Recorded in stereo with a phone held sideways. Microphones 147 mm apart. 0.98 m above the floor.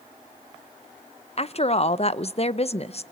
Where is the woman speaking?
45° left (ahead or behind), 0.5 m.